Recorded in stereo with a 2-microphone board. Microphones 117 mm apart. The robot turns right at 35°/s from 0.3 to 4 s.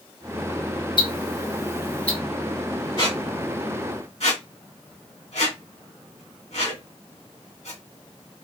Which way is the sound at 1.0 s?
45° left (ahead or behind).